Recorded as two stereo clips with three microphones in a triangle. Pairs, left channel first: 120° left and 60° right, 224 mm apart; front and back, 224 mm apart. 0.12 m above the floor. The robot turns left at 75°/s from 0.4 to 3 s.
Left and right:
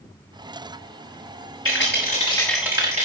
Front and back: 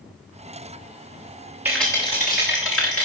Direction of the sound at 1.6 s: 100° left.